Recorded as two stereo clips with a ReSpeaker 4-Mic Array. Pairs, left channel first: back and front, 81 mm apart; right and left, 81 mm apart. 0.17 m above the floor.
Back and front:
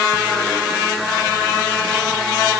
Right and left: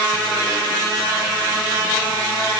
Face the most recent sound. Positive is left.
No sound to turn to.